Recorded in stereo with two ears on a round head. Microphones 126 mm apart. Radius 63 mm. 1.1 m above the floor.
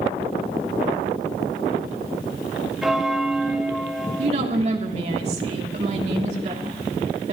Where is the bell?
5° right (ahead or behind), 1.4 m.